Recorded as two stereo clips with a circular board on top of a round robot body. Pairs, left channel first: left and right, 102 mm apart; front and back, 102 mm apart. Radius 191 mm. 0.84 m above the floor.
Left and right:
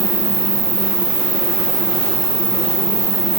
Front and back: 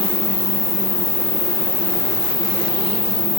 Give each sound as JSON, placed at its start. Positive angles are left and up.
{"t": 0.0, "sound": "an insect", "azimuth_deg": -5, "distance_m": 7.5}